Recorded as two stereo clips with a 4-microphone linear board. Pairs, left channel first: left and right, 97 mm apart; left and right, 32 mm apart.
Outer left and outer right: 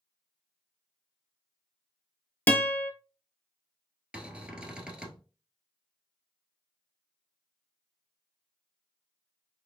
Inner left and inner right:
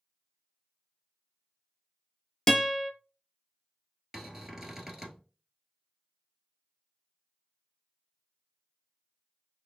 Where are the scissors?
No scissors in this recording.